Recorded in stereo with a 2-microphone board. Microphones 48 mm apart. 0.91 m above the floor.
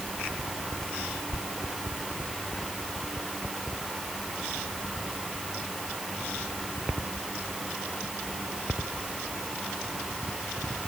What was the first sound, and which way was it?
Only background noise.